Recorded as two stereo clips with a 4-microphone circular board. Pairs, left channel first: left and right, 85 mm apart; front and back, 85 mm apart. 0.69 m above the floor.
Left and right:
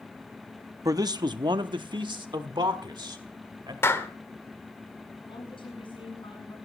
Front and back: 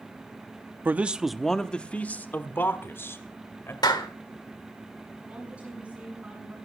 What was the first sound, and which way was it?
A man speaking, 120° right.